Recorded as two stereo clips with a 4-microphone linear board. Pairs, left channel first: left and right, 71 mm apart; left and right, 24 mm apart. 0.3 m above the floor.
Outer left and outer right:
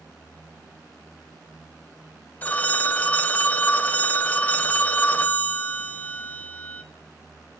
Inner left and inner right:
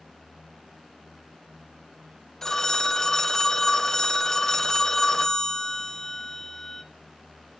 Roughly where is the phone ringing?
Left.